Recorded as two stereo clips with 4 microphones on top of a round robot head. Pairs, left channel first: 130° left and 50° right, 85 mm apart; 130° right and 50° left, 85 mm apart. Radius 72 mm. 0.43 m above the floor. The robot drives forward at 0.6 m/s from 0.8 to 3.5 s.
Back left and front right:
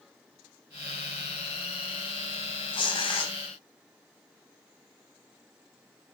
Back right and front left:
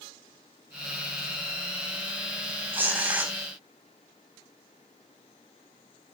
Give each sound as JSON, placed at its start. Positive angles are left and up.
{"t": 2.7, "sound": "tearing paper", "azimuth_deg": 115, "distance_m": 4.0}